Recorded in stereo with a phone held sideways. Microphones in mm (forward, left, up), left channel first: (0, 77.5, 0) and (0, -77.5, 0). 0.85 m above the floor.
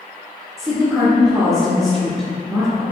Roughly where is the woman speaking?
Right.